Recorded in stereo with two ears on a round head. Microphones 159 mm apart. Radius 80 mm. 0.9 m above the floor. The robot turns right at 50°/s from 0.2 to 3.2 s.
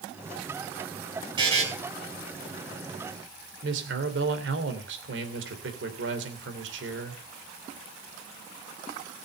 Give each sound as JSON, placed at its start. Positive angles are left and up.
{"t": 1.4, "sound": "a buzzer", "side_deg": -25, "distance_m": 4.5}
{"t": 3.6, "sound": "a man speaking", "side_deg": -70, "distance_m": 2.5}